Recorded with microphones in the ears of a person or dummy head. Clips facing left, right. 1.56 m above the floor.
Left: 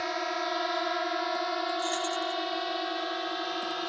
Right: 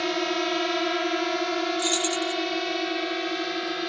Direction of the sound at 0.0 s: 40° right (ahead or behind).